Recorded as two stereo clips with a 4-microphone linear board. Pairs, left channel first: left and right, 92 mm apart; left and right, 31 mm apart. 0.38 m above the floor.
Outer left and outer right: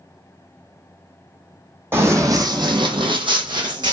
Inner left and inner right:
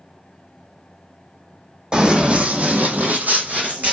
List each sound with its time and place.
1.9 s running footsteps: 25° right (ahead or behind), 0.8 m; by 3.9 s 50° right (ahead or behind), 1.0 m